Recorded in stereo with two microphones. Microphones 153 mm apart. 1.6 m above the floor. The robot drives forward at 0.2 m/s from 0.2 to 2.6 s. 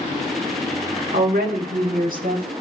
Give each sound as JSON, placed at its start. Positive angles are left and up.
{"t": 1.1, "sound": "a woman speaking", "side_deg": -75, "distance_m": 1.1}